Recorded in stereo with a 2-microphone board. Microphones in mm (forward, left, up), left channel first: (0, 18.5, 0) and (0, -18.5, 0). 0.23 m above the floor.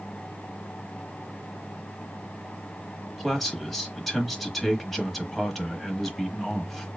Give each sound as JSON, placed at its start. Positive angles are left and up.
{"t": 3.2, "sound": "a man speaking", "side_deg": 5, "distance_m": 1.0}